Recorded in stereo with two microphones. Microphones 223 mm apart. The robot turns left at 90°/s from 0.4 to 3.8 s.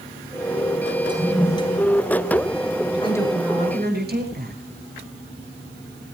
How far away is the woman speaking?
About 8.5 m.